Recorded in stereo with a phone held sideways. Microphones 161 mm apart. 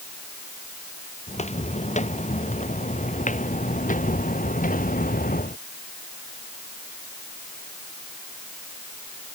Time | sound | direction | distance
1.3 | footsteps | 45° left (ahead or behind) | ?